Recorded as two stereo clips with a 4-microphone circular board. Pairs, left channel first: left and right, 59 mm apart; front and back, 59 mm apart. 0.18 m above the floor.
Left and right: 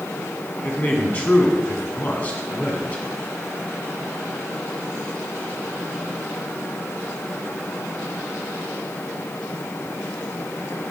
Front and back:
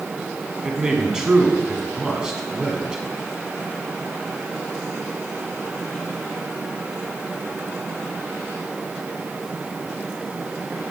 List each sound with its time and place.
0.6 s a man speaking: 115° left, 1.7 m